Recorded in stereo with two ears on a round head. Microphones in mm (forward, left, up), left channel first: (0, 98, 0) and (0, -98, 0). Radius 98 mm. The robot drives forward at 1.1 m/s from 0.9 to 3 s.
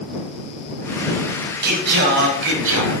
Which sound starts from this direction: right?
Singing, at 1.6 s.